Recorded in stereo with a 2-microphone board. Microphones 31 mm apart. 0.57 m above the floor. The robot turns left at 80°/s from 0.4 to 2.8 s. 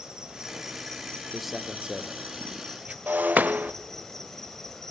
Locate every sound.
0.0 s an insect: 155° right, 2.5 m; by 4.9 s 10° left, 2.5 m
1.3 s a man speaking: centre (ahead or behind), 1.6 m; by 3.0 s 45° right (ahead or behind), 1.6 m
3.1 s breaking glass: 75° right (ahead or behind), 0.6 m